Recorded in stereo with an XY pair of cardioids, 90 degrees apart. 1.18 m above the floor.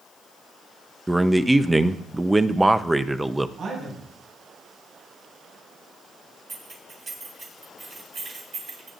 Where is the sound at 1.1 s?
10° right, 0.8 m.